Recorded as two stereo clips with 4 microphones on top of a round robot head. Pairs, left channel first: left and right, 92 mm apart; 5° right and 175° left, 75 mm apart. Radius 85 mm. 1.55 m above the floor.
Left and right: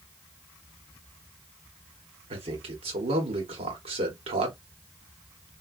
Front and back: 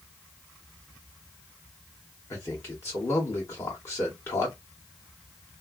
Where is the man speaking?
65° right, 1.3 m.